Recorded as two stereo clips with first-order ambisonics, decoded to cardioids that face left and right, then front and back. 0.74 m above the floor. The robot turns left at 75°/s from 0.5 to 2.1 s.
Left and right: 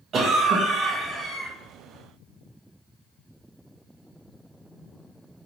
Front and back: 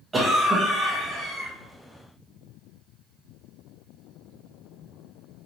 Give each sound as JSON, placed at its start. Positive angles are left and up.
{"t": 0.1, "sound": "a cough", "azimuth_deg": -115, "distance_m": 0.7}